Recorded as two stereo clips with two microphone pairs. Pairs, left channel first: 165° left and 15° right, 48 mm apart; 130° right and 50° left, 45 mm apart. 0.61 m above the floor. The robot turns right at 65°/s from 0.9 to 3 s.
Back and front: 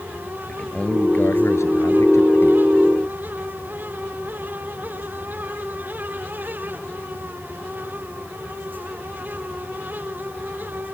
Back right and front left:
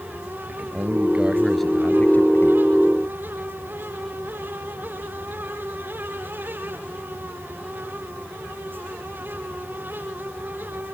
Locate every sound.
0.5 s a man speaking: 100° left; by 2.6 s 150° right